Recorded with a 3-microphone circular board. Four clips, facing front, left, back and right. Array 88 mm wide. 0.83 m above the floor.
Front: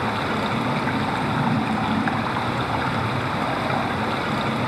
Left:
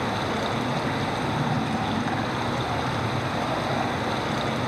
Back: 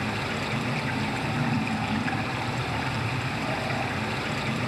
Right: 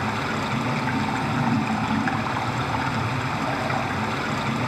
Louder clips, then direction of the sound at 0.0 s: Even, front 7 dB; 35° right.